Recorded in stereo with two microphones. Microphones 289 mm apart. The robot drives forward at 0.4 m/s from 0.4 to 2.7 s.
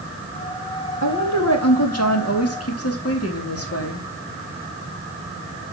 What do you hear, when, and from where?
1.0 s a woman speaking: 65° left (ahead or behind), 2 m; by 4.0 s 55° left (ahead or behind), 2.5 m